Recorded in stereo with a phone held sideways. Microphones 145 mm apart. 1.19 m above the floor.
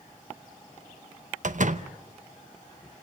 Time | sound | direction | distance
1.4 | a door slam | 60° right (ahead or behind) | 0.8 m